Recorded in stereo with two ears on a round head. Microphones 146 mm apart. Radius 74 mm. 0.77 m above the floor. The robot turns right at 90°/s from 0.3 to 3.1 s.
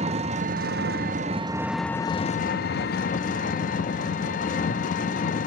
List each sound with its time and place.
0.0 s an engine running: 135° right, 0.7 m; by 5.5 s 120° left, 0.7 m